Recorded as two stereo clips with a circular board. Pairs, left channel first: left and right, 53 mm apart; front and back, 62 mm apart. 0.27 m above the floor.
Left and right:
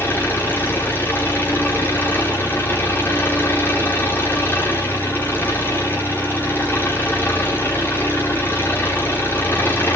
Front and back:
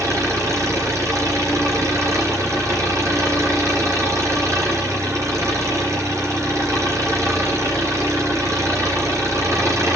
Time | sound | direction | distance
0.0 | an engine running | 145° left | 8 m